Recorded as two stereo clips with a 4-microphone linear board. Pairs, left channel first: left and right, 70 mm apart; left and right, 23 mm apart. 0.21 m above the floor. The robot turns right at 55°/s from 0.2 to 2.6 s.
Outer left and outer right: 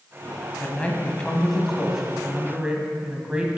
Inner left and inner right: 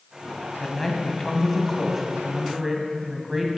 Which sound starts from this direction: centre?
A man speaking, at 0.6 s.